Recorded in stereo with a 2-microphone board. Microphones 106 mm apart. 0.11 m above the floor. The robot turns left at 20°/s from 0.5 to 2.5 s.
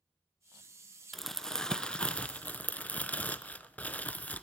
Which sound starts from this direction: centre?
Crumpling, at 1.1 s.